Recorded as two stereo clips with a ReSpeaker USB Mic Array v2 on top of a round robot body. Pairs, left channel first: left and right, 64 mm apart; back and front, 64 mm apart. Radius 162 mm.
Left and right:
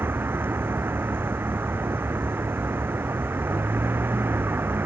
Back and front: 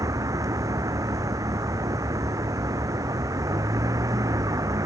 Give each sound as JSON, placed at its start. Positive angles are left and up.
{"t": 0.0, "sound": "a vehicle", "azimuth_deg": -35}